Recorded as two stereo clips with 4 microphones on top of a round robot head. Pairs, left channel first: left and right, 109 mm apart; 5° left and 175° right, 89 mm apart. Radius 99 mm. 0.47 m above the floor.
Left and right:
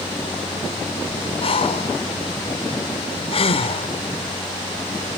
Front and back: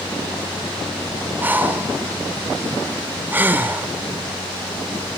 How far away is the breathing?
About 1.2 m.